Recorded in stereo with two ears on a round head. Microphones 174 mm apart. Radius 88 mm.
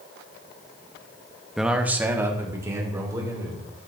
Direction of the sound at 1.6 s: Centre (ahead or behind).